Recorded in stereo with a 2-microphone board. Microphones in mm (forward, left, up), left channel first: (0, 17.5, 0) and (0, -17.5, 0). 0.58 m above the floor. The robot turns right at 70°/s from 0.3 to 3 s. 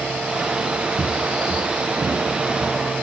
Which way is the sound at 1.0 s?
60° right (ahead or behind).